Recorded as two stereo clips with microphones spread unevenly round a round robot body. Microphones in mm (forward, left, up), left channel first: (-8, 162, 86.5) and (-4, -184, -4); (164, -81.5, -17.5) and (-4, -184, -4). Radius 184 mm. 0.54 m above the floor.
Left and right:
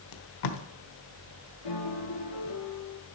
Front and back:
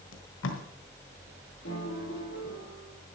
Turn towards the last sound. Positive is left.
turn(degrees=75)